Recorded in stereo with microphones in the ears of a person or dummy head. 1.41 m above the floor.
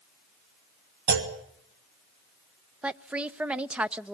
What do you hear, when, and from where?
1.1 s a clunk: 55° right (ahead or behind), 2.5 m
2.8 s a woman speaking: 10° right (ahead or behind), 0.6 m